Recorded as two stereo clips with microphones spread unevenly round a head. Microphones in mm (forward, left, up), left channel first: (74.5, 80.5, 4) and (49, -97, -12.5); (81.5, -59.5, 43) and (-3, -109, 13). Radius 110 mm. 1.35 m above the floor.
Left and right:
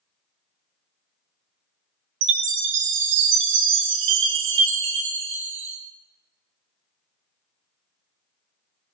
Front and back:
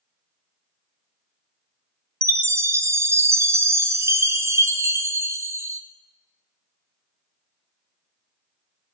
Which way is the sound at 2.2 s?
85° right.